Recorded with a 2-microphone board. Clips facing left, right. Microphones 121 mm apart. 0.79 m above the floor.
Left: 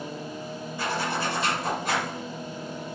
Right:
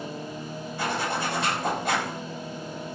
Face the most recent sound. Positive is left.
turn(degrees=-65)  # may be behind; listen again after turning